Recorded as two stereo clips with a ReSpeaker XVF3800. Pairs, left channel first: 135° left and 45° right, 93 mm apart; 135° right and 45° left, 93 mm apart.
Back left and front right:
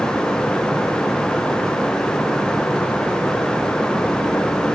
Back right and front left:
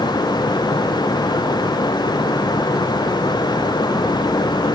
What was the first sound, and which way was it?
Only background noise.